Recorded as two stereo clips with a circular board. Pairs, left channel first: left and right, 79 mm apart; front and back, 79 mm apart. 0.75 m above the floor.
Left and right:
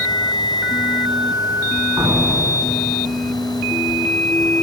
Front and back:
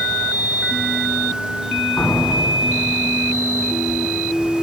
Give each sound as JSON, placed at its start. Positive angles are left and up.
{"t": 2.0, "sound": "a door slam", "azimuth_deg": -75, "distance_m": 4.5}